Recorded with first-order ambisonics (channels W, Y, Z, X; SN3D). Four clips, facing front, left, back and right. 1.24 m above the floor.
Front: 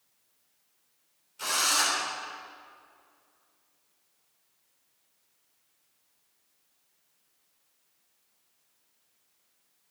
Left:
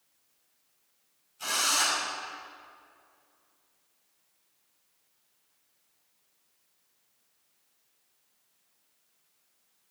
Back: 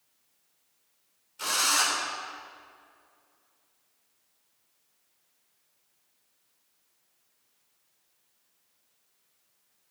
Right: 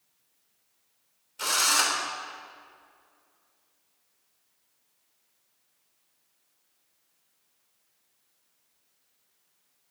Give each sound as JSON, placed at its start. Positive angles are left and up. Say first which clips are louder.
{"t": 1.4, "sound": "a drill", "louder": "right 3 dB, back 1 dB", "azimuth_deg": -95, "distance_m": 3.5}